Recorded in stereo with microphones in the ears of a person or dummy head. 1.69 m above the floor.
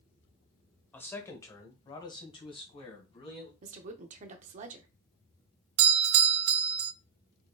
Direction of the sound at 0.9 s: 10° left (ahead or behind).